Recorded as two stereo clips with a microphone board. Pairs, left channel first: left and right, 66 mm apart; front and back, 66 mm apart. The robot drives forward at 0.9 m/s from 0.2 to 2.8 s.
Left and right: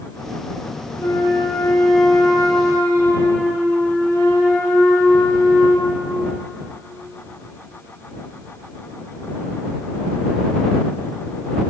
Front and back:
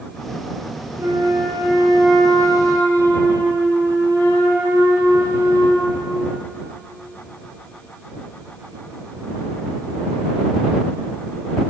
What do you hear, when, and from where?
1.0 s a flute: 140° left, 4.5 m; by 6.0 s 150° left, 5.5 m